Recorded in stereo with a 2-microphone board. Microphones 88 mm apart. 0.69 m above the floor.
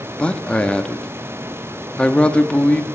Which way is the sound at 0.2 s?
15° left (ahead or behind).